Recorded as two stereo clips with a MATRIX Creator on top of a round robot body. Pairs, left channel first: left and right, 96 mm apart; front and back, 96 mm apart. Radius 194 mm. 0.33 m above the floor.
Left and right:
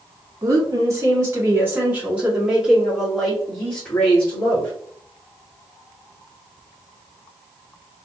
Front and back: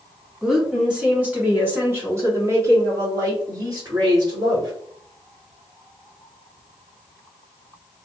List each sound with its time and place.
0.4 s a woman speaking: 100° right, 1.8 m; by 4.7 s 160° left, 2 m